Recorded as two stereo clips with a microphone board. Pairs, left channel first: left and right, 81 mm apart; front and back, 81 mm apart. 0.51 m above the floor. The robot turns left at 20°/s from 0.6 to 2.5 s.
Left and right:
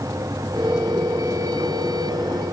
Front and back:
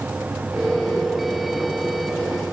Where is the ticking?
No ticking in this recording.